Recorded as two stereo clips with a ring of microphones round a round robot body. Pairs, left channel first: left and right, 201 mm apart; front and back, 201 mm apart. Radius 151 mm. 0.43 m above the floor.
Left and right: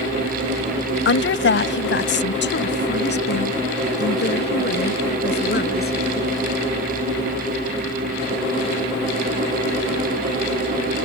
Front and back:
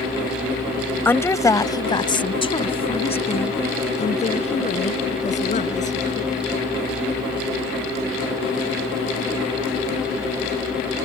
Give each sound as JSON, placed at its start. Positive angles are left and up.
{"t": 1.1, "sound": "a woman speaking", "azimuth_deg": 80}